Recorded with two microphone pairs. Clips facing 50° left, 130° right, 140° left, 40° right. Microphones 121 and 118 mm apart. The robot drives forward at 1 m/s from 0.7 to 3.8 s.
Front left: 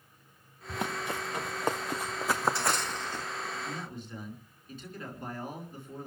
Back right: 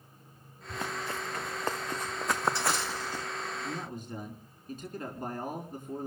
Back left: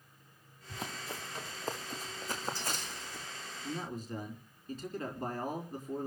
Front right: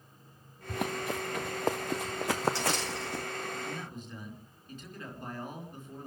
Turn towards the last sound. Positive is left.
turn(degrees=-175)